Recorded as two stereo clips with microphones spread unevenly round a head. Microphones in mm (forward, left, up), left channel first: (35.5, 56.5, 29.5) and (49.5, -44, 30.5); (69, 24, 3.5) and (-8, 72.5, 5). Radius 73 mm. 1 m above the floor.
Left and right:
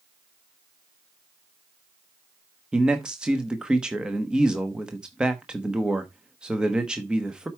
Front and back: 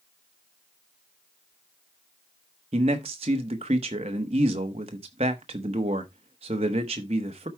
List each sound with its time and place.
2.7 s a man speaking: 165° right, 1.0 m